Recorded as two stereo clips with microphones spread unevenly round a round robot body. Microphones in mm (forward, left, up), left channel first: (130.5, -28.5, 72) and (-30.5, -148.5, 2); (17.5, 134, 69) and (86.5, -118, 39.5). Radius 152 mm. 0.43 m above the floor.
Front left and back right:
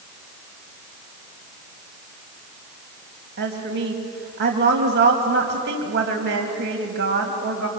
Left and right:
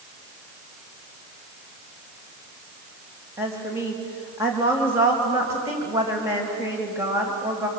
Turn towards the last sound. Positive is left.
turn(degrees=-155)